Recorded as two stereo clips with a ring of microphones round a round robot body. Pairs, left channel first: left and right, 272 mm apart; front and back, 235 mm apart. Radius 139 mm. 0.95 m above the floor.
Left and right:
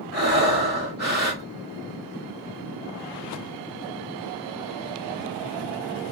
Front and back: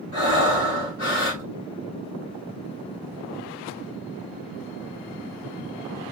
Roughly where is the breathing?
Ahead right.